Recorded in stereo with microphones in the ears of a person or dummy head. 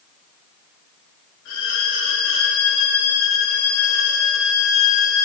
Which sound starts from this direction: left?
A violin, at 1.4 s.